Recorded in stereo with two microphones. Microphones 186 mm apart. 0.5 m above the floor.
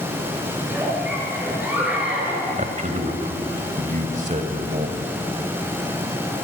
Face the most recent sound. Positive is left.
turn(degrees=-40)  # may be behind; listen again after turning